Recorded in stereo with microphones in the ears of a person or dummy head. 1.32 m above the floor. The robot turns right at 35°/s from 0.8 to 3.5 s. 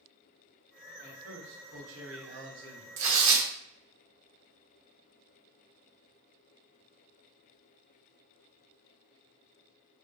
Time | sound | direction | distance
1.0 | a man speaking | 115° right | 0.9 m
3.0 | tearing paper | 70° right (ahead or behind) | 0.7 m